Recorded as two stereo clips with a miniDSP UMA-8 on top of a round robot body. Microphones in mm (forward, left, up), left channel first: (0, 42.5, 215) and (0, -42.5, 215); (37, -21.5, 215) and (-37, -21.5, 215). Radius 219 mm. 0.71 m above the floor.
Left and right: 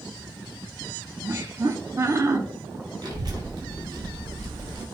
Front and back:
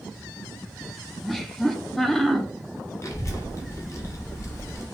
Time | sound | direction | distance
1.2 | laughter | 85° right | 0.7 m
3.0 | a child speaking | 50° right | 0.9 m